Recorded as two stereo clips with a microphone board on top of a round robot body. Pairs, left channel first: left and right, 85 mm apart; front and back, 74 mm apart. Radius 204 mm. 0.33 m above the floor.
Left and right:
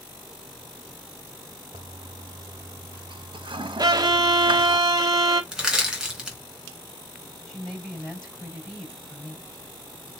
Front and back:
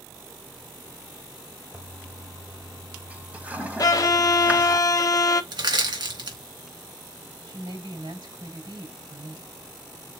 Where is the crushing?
175° right, 3.5 m.